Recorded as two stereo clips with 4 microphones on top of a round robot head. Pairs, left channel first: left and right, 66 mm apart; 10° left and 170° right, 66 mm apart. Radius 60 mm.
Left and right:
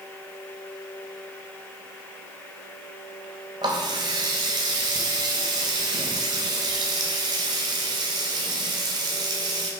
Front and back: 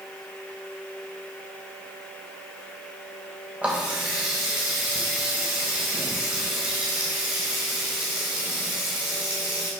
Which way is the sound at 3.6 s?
95° right.